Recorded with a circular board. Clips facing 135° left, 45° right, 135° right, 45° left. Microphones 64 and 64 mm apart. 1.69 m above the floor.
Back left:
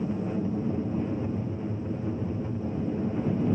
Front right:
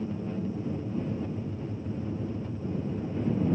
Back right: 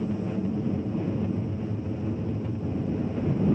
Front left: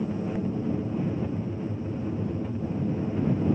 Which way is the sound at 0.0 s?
125° left.